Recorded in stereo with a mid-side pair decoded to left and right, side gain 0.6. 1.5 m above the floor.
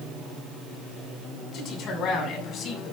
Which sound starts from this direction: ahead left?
A man speaking, at 1.5 s.